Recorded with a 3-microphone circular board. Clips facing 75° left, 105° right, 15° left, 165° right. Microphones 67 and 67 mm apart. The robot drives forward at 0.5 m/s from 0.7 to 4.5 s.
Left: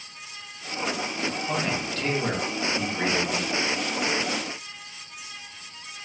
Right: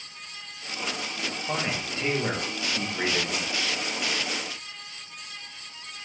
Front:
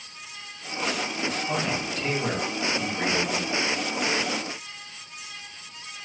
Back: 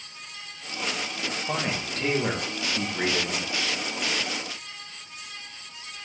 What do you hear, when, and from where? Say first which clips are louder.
1.5 s a man speaking: right 1 dB, front 2 dB; 165° right, 0.8 m; by 3.5 s 175° right, 1.6 m